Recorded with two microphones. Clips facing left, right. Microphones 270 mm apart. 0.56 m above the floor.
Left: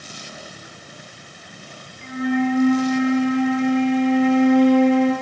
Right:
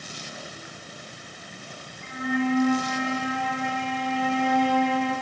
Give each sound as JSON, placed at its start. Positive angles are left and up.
{"t": 2.0, "sound": "a flute", "side_deg": 85, "distance_m": 4.0}